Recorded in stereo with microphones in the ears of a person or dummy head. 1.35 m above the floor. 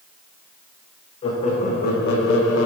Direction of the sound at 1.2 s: 35° left (ahead or behind).